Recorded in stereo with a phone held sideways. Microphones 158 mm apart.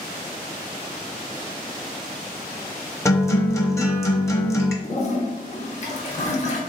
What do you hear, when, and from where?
3.0 s a guitar: 20° left (ahead or behind), 0.6 m
4.8 s a toilet flushing: 45° left (ahead or behind), 0.6 m